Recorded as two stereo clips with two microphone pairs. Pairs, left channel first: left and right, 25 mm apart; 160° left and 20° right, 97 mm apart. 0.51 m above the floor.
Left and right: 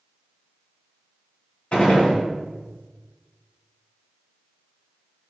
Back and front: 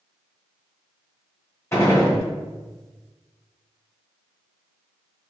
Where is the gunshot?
105° left, 1.8 m.